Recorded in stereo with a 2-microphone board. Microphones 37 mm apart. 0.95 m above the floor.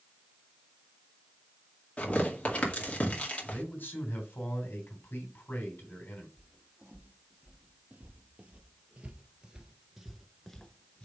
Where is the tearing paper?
30° left (ahead or behind), 2 m.